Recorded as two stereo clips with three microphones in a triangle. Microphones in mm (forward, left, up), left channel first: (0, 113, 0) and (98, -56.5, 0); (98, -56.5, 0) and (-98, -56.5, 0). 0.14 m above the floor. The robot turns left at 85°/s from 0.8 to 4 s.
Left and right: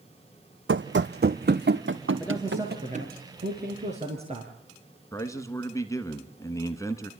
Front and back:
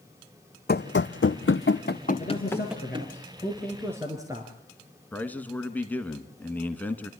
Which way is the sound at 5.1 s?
70° left.